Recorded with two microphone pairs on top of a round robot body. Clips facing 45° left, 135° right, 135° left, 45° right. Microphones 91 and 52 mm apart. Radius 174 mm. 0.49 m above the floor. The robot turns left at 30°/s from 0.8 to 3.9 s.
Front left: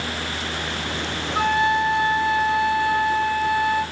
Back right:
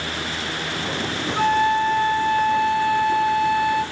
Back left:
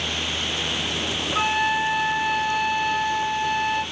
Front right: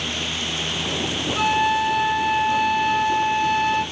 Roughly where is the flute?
Ahead left.